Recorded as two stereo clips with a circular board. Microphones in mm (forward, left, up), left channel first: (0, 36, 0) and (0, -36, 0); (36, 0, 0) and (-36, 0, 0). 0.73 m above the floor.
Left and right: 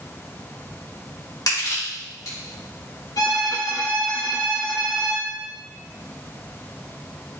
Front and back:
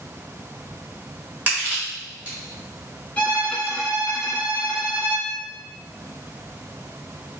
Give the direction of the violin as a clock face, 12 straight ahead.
10 o'clock.